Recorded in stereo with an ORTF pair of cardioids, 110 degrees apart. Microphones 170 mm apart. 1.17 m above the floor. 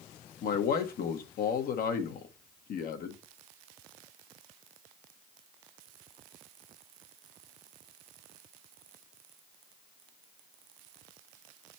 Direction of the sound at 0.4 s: 60° left.